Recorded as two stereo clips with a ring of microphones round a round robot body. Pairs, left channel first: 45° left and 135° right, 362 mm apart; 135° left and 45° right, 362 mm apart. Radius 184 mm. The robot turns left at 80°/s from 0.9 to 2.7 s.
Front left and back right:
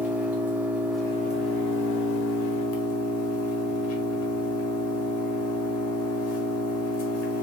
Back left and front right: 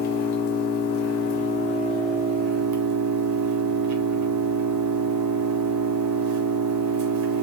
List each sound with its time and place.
0.0 s an engine running: 140° left, 0.8 m; by 7.4 s 5° right, 0.8 m